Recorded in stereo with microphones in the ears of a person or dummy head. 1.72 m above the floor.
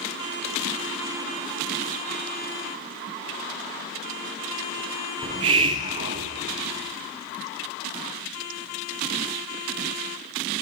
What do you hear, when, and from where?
5.2 s a hiss: 25° right (ahead or behind), 0.7 m